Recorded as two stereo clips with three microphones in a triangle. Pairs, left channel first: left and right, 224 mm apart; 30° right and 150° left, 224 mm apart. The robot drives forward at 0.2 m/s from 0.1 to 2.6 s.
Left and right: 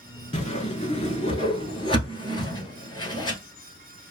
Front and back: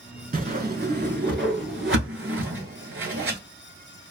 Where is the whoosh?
130° left, 0.6 m; by 3.4 s 155° left, 0.9 m.